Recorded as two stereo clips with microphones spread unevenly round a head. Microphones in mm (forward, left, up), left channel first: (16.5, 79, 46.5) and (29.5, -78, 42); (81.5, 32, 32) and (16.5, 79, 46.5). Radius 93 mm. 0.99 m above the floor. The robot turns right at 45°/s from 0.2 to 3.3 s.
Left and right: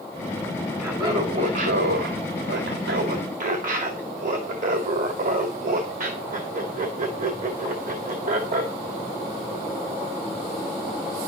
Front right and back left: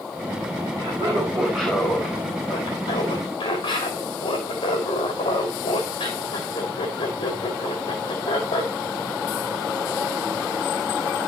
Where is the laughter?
165° right, 2 m; by 8.7 s 55° right, 2 m.